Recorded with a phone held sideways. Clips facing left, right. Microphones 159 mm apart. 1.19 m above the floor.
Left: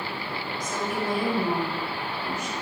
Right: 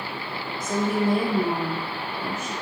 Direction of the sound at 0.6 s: 55° right (ahead or behind).